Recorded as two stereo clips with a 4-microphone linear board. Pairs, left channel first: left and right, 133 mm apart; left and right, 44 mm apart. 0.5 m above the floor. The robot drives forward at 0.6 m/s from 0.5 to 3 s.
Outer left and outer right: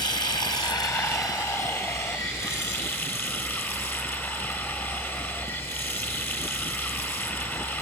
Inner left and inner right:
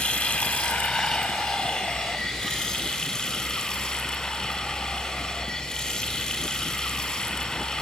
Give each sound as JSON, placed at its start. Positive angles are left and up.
{"t": 0.0, "sound": "running water", "side_deg": 30, "distance_m": 1.7}